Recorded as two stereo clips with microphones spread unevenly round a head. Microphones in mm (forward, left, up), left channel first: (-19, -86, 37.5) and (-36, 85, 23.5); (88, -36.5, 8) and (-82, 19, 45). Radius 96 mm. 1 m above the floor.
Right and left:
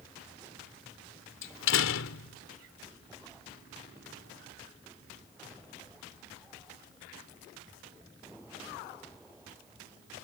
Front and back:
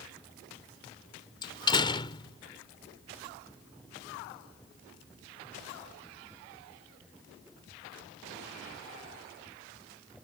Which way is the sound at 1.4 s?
85° right.